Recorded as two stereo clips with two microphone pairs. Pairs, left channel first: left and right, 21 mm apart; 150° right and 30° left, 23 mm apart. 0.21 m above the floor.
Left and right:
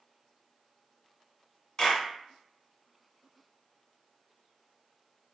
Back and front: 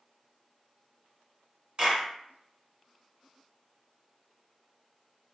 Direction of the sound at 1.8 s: 50° left.